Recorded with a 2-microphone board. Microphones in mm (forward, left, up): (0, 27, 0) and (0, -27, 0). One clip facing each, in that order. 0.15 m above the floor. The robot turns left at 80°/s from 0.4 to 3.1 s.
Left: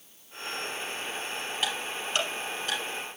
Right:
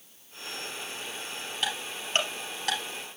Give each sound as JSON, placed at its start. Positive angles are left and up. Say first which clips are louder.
{"t": 1.6, "sound": "ticking", "louder": "even", "side_deg": 5, "distance_m": 3.5}